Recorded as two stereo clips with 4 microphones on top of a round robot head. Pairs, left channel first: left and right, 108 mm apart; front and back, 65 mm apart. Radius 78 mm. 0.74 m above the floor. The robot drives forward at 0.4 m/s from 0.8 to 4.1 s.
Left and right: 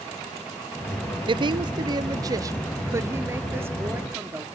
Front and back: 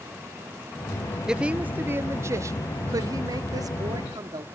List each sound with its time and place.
1.3 s a woman speaking: 100° right, 0.6 m; by 4.5 s 160° right, 1.3 m